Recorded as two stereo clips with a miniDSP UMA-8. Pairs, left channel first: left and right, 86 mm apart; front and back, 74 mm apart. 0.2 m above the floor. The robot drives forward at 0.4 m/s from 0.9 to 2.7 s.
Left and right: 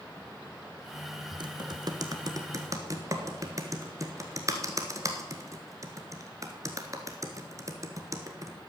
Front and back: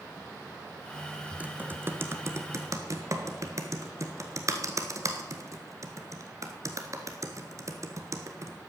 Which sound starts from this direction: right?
Typing on a keyboard, at 1.4 s.